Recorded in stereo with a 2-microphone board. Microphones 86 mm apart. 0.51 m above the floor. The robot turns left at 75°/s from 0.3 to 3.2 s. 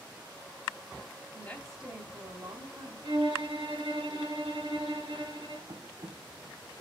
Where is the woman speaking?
30° left, 2.5 m; by 2.9 s 90° right, 2.5 m.